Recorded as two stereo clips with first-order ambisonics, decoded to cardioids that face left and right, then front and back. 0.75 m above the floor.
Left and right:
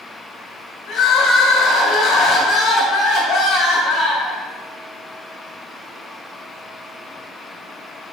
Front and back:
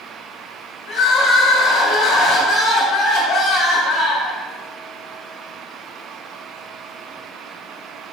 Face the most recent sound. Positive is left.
turn(degrees=45)